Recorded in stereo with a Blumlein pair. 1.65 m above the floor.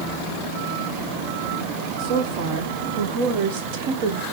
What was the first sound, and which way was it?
A woman speaking, 45° right.